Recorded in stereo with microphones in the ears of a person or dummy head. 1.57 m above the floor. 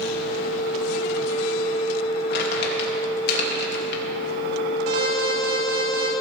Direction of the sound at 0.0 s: 60° right (ahead or behind).